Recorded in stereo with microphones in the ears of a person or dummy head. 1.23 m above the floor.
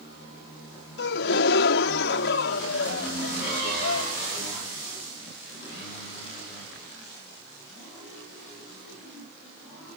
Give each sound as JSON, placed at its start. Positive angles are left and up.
{"t": 1.0, "sound": "a gasp", "side_deg": 65}